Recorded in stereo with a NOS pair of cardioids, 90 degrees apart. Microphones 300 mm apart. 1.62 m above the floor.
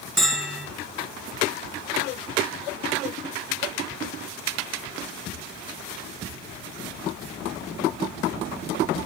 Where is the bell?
Straight ahead, 1.7 m.